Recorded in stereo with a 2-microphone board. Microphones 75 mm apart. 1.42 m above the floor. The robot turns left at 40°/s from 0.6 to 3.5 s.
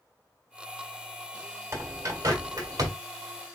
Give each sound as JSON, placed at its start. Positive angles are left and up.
{"t": 1.7, "sound": "a bird", "side_deg": -35, "distance_m": 1.6}